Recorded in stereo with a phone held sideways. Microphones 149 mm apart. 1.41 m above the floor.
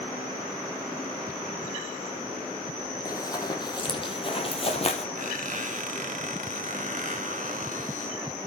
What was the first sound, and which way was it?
Running footsteps, 25° left (ahead or behind).